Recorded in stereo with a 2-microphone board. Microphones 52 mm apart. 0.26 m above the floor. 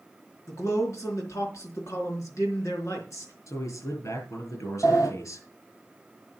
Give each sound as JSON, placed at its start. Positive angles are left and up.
{"t": 0.5, "sound": "a man speaking", "side_deg": 65, "distance_m": 4.0}
{"t": 3.5, "sound": "a man speaking", "side_deg": 65, "distance_m": 6.0}
{"t": 4.8, "sound": "a sliding door", "side_deg": 85, "distance_m": 2.5}